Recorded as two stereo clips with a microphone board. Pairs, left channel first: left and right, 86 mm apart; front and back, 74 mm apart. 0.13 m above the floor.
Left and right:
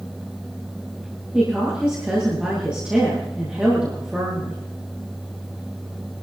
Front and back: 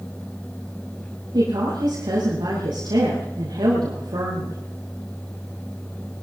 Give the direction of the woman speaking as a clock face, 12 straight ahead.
6 o'clock.